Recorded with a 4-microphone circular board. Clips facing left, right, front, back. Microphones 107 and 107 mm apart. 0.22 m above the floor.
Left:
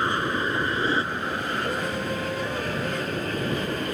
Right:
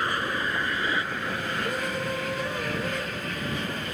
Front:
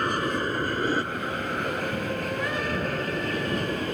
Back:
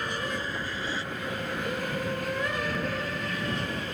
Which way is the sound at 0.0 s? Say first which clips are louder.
Left 3 dB, front 6 dB; 25° left.